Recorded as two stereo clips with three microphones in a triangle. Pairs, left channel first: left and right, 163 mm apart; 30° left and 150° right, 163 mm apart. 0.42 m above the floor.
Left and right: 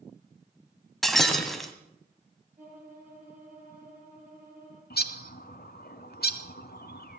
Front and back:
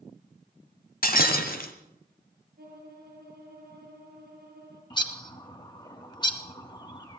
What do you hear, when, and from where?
1.0 s breaking glass: straight ahead, 1.3 m
2.6 s a violin: 130° right, 8 m
4.9 s a bird: 90° left, 1.1 m